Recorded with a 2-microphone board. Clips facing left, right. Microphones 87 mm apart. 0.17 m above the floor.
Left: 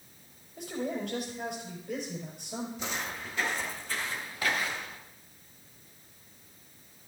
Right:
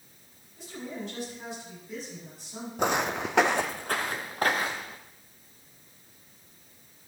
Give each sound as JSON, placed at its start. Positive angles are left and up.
{"t": 0.6, "sound": "a man speaking", "side_deg": 70, "distance_m": 4.5}
{"t": 2.8, "sound": "footsteps", "side_deg": -55, "distance_m": 0.6}